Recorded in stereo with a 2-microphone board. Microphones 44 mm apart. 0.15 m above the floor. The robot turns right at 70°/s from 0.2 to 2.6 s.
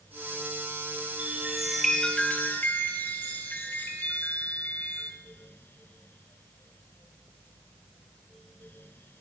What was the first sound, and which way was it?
A chime, 40° right.